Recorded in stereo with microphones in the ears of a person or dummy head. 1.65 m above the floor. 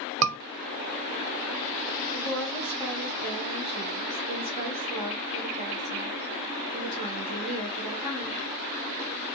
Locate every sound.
0.2 s a scream: 65° right (ahead or behind), 0.9 m
2.1 s a woman speaking: 30° right (ahead or behind), 1.8 m